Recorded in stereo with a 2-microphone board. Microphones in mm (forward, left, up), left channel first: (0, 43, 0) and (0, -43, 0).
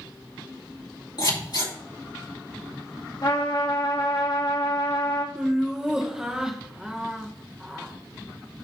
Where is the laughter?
10° right (ahead or behind), 0.9 m.